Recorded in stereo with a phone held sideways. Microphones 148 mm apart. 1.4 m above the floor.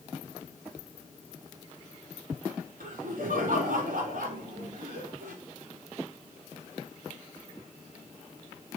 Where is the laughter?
80° right, 3.5 m.